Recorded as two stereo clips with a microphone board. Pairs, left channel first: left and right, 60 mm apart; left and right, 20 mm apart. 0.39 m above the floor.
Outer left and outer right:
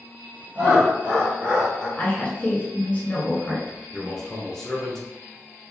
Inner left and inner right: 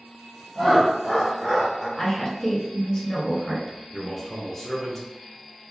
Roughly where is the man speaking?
Centre.